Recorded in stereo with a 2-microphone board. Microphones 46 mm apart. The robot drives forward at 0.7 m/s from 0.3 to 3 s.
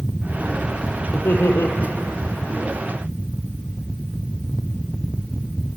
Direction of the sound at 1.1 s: 55° left (ahead or behind).